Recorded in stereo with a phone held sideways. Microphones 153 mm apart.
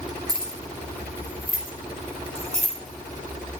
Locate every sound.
0.3 s keys jangling: 75° right (ahead or behind), 2.5 m; by 2.7 s 45° right (ahead or behind), 3.5 m